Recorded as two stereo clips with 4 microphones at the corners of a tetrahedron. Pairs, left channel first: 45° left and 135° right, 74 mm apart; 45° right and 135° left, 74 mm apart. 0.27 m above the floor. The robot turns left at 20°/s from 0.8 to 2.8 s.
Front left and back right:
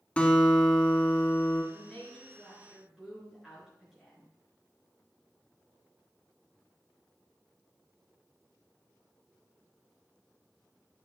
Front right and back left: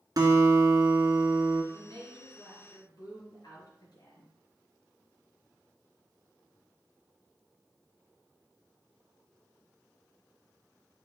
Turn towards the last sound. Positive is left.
turn(degrees=-50)